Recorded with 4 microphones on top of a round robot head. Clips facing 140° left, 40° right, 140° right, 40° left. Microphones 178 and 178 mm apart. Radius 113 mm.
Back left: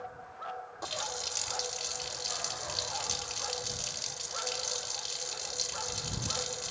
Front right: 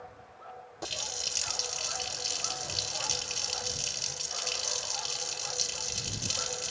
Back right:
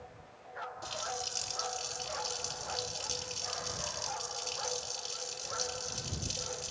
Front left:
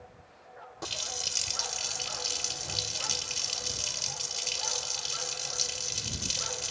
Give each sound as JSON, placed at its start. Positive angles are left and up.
{"t": 0.8, "sound": "a running tap", "azimuth_deg": 25}